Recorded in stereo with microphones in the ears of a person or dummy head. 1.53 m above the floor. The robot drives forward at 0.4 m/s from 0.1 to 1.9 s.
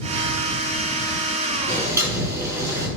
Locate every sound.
1.7 s boiling: 15° right (ahead or behind), 5 m